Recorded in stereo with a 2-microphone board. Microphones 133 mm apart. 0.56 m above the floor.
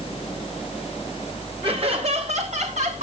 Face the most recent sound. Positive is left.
turn(degrees=-65)  # may be behind; listen again after turning